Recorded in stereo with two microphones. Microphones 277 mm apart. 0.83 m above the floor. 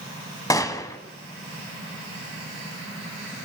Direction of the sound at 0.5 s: 15° left (ahead or behind).